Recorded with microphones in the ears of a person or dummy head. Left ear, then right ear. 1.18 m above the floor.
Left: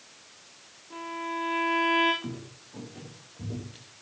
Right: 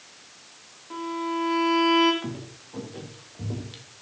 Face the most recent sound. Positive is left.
turn(degrees=-35)  # may be behind; listen again after turning